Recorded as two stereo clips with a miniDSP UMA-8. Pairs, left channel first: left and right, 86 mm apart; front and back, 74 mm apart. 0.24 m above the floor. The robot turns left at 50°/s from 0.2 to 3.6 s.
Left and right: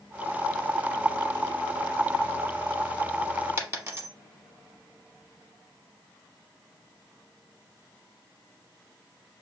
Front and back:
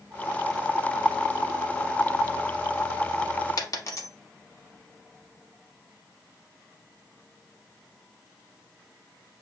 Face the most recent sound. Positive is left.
turn(degrees=-35)